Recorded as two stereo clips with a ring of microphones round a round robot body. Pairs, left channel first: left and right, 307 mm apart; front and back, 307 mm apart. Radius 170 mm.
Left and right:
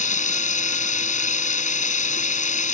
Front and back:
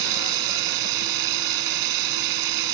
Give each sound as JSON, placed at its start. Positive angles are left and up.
{"t": 0.0, "sound": "running water", "azimuth_deg": 155}